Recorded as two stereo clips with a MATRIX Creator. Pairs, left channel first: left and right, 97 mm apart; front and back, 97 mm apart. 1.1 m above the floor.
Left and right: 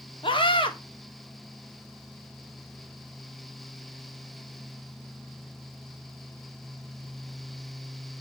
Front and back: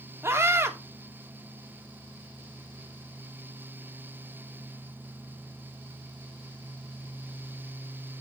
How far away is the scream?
About 2.5 m.